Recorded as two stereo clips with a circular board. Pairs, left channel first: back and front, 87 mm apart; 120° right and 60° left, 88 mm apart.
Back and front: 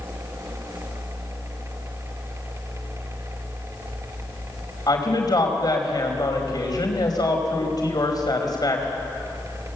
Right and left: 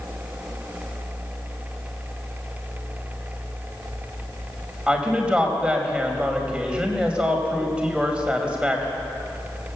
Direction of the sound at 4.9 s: 135° left.